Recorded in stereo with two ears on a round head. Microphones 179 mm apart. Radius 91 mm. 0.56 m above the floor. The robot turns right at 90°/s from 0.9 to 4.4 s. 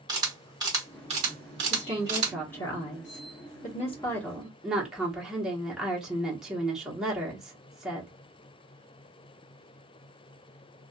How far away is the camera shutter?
About 1.6 m.